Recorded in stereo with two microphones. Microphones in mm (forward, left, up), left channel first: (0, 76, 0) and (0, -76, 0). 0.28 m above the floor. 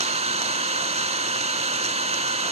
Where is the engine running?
45° right (ahead or behind), 0.9 m.